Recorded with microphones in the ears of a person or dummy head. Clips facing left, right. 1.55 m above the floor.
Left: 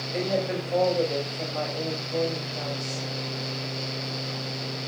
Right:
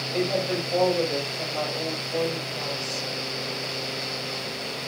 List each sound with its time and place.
0.1 s a woman speaking: 10° left (ahead or behind), 3.5 m